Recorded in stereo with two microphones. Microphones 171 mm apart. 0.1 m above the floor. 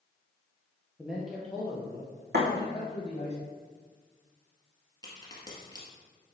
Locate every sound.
1.0 s a man speaking: 10° right (ahead or behind), 2.5 m; by 3.3 s 40° left (ahead or behind), 4 m
2.3 s a thud: 70° right (ahead or behind), 3 m
5.0 s a crack: 25° left (ahead or behind), 2.5 m